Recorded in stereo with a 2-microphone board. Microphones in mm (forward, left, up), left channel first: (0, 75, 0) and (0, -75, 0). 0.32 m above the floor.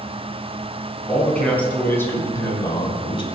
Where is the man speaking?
5° left (ahead or behind), 3.5 m; by 3.3 s 40° left (ahead or behind), 1.9 m.